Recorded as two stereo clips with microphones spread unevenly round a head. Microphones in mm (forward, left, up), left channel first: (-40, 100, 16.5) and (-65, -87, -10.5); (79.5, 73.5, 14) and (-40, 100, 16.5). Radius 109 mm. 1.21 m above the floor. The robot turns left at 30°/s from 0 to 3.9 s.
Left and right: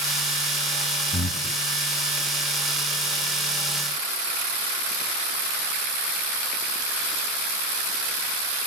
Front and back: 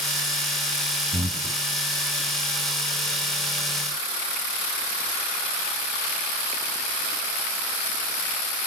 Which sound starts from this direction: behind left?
Breathing, at 1.1 s.